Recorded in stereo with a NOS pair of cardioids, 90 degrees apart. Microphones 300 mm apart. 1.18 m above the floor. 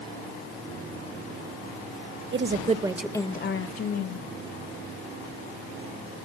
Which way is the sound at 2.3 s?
40° right.